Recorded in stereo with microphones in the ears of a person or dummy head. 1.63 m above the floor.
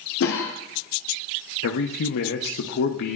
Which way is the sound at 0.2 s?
70° left (ahead or behind).